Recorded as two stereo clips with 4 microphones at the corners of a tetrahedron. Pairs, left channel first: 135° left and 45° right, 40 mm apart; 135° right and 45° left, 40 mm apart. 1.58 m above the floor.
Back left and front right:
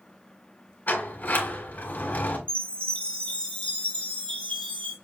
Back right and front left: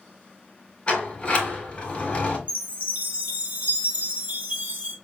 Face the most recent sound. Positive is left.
turn(degrees=80)